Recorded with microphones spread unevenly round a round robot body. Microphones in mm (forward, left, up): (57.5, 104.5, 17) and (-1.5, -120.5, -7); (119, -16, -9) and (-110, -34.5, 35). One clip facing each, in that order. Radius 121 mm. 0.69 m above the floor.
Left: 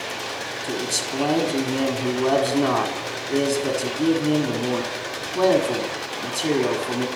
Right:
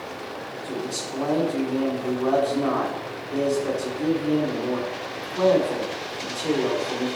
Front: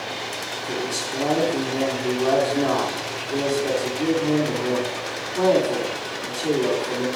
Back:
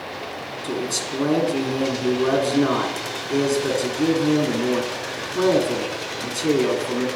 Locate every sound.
0.6 s a man speaking: 115° left, 1.5 m